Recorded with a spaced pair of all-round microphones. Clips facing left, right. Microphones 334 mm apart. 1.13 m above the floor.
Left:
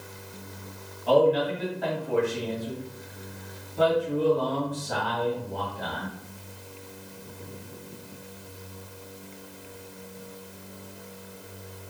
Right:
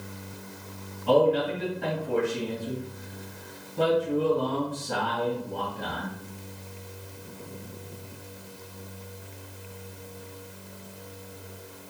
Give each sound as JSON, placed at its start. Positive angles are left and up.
{"t": 1.1, "sound": "a man speaking", "side_deg": -35, "distance_m": 1.5}